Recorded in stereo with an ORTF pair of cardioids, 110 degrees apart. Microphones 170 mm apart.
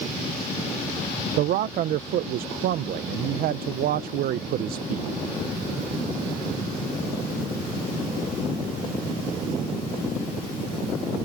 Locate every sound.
1.4 s a man speaking: 65° right